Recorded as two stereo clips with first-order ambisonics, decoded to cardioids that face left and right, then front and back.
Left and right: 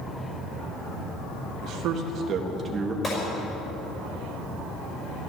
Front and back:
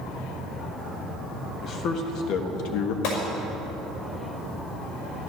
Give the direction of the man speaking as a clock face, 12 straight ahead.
2 o'clock.